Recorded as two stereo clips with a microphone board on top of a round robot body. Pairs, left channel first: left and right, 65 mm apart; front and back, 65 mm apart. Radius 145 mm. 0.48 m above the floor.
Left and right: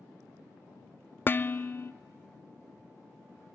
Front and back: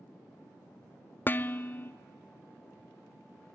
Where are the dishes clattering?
45° left, 0.5 m.